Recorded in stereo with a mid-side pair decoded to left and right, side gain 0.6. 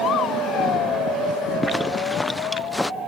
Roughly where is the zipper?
Ahead.